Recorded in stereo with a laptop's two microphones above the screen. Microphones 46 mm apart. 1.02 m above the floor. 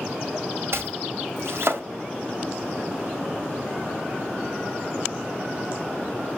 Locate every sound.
0.7 s chopping: 70° right (ahead or behind), 1.8 m